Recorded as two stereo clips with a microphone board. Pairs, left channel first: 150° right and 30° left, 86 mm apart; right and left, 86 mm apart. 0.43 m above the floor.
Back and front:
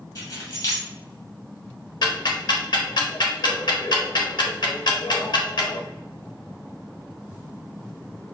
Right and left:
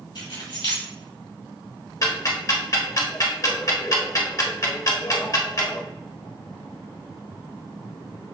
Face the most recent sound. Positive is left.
turn(degrees=-130)